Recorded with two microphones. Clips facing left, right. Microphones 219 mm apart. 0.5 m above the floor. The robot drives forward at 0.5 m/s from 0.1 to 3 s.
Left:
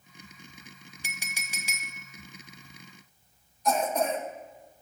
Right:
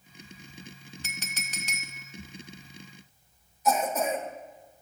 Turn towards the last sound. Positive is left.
turn(degrees=-5)  # may be behind; listen again after turning